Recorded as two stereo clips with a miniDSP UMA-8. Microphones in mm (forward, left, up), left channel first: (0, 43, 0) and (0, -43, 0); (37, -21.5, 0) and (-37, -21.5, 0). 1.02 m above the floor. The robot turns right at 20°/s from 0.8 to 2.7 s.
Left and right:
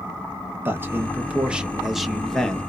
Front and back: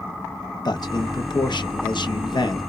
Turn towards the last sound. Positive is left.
turn(degrees=15)